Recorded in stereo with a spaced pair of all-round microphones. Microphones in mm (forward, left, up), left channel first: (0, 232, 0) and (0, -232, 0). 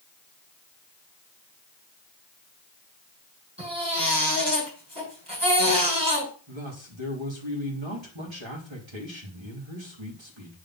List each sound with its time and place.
3.6 s a baby crying: 60° right (ahead or behind), 8 m
6.5 s a man speaking: 75° right (ahead or behind), 3 m